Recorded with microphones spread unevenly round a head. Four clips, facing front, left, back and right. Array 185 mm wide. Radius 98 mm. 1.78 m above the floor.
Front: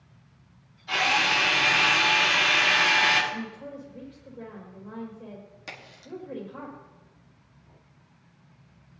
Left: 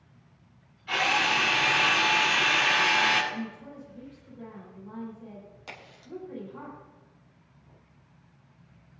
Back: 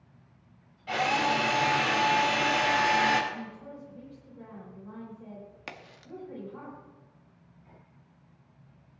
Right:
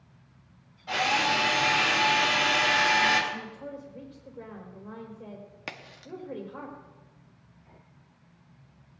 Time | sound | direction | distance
0.9 | a drill | 150° right | 4 m
3.3 | a woman speaking | 55° right | 4.5 m
5.7 | a crack | 105° right | 1.6 m